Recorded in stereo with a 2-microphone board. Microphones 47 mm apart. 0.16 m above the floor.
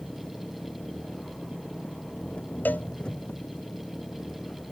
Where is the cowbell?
40° left (ahead or behind).